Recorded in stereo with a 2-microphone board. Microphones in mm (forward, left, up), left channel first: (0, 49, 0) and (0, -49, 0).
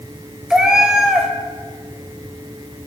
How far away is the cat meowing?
About 1.1 m.